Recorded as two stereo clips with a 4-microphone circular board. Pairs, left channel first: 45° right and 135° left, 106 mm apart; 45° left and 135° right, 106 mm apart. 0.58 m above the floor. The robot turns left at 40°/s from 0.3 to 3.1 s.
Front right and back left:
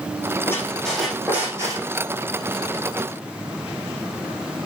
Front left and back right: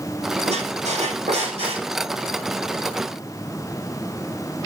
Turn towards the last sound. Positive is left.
turn(degrees=140)